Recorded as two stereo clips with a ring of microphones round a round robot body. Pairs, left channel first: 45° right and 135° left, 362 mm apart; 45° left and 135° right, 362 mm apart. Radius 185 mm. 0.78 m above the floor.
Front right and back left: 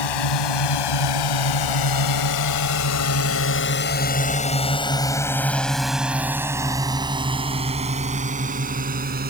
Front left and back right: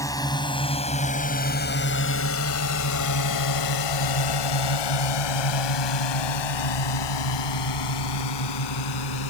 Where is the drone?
35° right; by 9.3 s 70° left.